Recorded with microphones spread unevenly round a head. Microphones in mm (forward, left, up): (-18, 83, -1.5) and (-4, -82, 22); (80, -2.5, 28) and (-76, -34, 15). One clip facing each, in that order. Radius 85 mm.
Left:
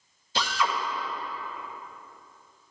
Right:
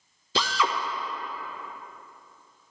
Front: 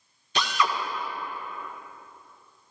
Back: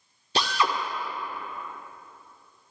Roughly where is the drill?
Right.